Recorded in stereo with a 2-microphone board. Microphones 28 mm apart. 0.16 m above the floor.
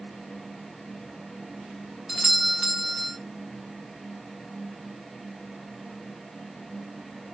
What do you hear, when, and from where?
2.1 s a doorbell: 5° right (ahead or behind), 1.6 m